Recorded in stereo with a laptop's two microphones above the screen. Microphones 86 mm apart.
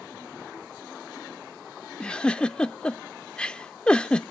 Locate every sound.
2.0 s a giggle: 10° left (ahead or behind), 0.5 m